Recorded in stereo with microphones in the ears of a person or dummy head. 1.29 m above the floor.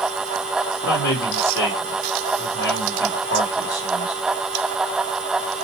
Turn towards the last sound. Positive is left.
turn(degrees=65)  # may be behind; listen again after turning